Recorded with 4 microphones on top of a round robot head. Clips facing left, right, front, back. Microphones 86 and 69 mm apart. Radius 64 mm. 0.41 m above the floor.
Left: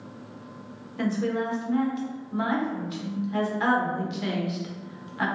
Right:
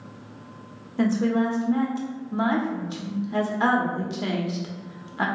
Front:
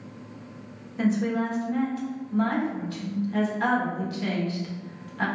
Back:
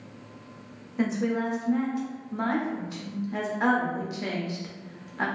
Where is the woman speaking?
125° right, 0.9 m.